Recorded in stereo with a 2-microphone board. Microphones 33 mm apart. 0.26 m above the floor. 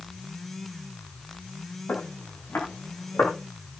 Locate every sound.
1.9 s footsteps: 75° left (ahead or behind), 7 m; by 3.3 s 80° left, 7.5 m